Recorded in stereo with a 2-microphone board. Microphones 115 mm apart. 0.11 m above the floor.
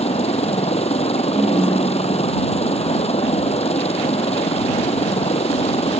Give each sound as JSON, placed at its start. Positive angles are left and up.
{"t": 0.0, "sound": "a helicopter", "side_deg": 60}
{"t": 1.4, "sound": "a ringtone", "side_deg": -15}